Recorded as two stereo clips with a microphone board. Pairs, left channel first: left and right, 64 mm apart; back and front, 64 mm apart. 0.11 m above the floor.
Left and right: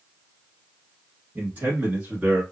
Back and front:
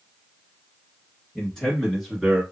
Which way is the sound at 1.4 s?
115° right.